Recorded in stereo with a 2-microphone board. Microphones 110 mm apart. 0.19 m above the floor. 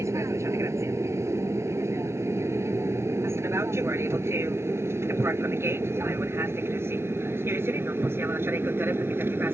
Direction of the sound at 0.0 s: 25° right (ahead or behind).